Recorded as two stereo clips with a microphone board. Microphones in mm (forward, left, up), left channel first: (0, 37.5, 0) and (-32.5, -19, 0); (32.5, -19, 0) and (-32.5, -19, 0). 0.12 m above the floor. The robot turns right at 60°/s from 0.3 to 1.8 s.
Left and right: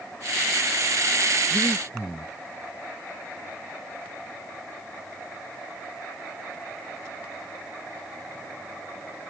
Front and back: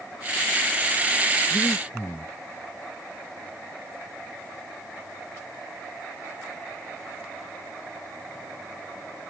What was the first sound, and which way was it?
Breathing, 50° right.